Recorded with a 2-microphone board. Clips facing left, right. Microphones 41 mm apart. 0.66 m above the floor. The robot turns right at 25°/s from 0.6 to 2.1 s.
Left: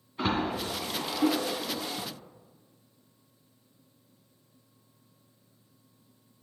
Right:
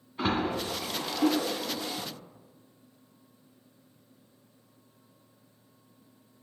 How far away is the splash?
About 2 m.